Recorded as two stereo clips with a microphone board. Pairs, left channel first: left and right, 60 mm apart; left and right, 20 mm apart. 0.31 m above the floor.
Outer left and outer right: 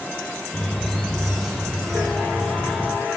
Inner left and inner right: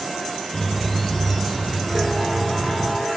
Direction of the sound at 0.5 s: 5° left (ahead or behind).